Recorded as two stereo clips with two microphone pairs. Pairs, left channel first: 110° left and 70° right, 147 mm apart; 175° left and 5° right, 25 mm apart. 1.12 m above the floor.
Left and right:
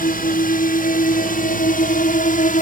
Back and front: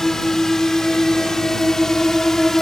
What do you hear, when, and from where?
0.0 s a drone: 105° left